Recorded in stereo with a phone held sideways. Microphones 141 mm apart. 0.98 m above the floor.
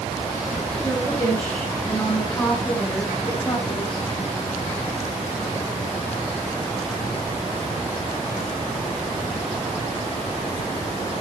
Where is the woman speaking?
15° left (ahead or behind), 8 m; by 4.0 s 45° left (ahead or behind), 5 m.